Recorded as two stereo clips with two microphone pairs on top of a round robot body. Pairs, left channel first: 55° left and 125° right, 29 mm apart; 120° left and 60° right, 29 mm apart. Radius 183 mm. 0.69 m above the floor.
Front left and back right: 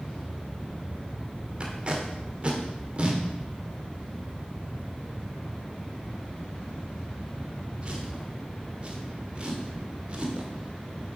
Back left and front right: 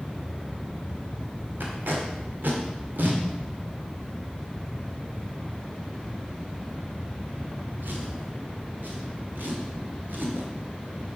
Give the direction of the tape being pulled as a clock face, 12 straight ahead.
2 o'clock.